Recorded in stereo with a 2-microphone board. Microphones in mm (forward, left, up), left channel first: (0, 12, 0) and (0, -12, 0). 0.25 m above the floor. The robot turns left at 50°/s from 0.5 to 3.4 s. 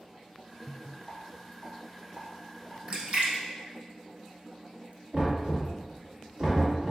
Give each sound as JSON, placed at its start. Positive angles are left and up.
{"t": 1.1, "sound": "a rattle", "side_deg": 20, "distance_m": 1.1}
{"t": 2.9, "sound": "a splash", "side_deg": -45, "distance_m": 0.7}
{"t": 5.1, "sound": "knocking", "side_deg": -50, "distance_m": 1.7}